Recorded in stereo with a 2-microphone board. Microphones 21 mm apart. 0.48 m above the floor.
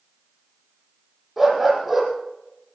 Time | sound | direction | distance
1.4 | a dog barking | 5° right (ahead or behind) | 5 m